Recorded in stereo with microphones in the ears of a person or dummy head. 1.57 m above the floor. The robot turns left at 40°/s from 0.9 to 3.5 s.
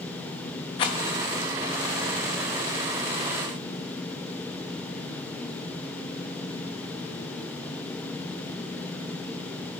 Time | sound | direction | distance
0.8 | a rattle | 25° left (ahead or behind) | 0.7 m